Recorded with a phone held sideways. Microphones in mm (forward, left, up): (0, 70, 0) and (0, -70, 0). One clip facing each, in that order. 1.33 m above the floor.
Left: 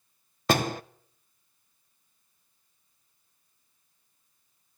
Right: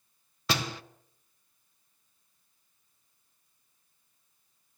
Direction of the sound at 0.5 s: 50° left (ahead or behind).